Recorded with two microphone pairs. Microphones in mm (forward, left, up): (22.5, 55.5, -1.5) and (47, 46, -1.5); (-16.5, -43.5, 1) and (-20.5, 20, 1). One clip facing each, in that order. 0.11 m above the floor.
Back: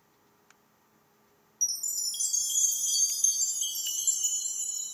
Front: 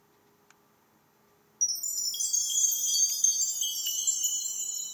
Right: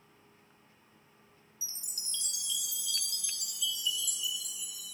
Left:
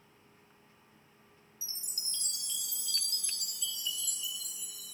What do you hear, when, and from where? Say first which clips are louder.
1.6 s a chime: front 1 dB, left 1 dB; 55° left, 0.7 m